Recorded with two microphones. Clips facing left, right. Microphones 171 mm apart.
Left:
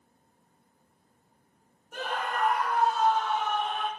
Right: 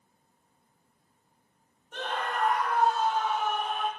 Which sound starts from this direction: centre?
A scream, at 1.9 s.